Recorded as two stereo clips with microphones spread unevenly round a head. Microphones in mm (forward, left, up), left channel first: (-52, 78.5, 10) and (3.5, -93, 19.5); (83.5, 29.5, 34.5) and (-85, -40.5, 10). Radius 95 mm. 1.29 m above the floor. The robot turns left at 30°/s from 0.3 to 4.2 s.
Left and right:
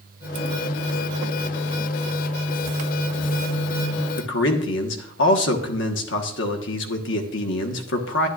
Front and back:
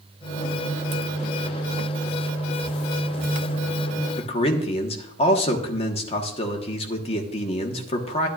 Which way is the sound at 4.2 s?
85° left.